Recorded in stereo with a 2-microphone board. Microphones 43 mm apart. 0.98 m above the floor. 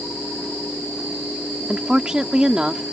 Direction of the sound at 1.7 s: 20° right (ahead or behind).